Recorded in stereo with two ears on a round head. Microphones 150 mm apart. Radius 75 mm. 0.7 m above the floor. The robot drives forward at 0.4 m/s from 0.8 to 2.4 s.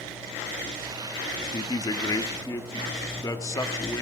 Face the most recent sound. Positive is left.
turn(degrees=20)  # may be behind; listen again after turning